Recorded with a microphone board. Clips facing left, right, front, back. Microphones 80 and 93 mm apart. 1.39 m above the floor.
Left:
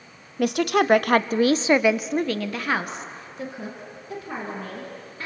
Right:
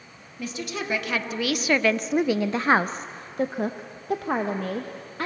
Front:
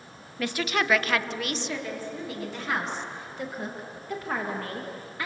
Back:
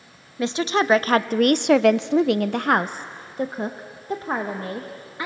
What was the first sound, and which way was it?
A woman speaking, 110° left.